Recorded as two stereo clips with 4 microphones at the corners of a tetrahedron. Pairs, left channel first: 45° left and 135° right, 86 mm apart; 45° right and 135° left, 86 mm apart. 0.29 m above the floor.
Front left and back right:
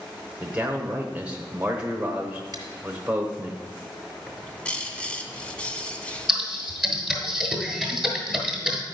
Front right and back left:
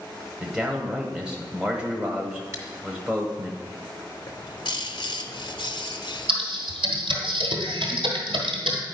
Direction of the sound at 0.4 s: 170° right.